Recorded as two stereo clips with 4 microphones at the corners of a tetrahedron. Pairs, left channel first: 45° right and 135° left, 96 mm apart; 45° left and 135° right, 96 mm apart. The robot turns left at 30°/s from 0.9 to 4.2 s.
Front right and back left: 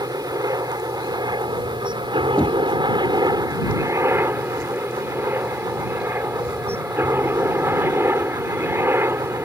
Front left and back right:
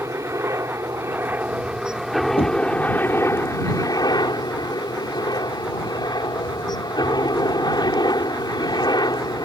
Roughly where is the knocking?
Ahead left.